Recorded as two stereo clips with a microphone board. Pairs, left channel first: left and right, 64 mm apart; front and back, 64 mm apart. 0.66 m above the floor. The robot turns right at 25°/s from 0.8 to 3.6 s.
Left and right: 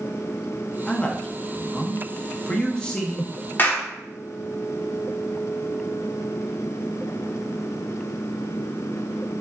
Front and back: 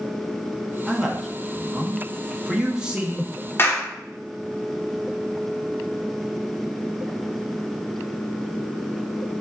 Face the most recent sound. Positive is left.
turn(degrees=40)